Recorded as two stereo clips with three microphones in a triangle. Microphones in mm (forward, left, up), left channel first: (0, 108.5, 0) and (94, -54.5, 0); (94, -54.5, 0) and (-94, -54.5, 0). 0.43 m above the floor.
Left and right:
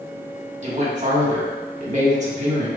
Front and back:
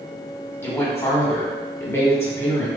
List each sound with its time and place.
0.6 s a woman speaking: 70° right, 1.0 m